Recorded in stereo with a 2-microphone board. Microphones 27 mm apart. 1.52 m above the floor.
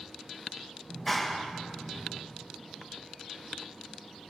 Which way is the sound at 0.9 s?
5° left (ahead or behind).